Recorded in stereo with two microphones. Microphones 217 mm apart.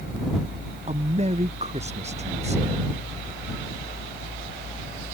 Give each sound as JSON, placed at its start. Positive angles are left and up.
{"t": 0.9, "sound": "a man speaking", "side_deg": -30}